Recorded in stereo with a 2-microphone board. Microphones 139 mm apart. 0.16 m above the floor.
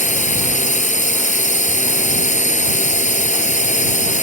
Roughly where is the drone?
Left.